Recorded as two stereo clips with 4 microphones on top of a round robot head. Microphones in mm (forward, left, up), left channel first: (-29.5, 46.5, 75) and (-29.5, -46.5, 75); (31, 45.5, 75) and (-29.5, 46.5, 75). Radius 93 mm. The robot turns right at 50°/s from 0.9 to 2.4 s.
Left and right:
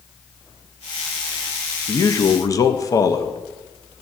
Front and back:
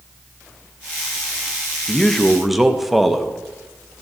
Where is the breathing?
I don't hear breathing.